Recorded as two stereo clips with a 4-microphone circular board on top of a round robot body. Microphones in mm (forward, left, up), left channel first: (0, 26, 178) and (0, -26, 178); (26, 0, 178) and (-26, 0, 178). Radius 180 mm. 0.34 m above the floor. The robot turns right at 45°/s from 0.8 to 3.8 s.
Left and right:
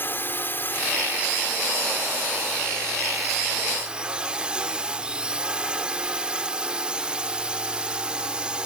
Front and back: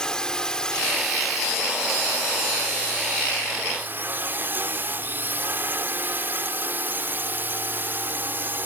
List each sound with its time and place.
0.0 s a drone: 70° left; by 8.7 s 155° right